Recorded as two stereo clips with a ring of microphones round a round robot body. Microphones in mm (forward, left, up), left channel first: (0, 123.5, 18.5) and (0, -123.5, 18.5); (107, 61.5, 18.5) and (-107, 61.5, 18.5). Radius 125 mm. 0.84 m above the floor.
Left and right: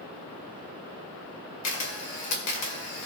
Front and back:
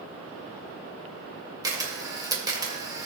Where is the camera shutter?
110° left, 2.5 m.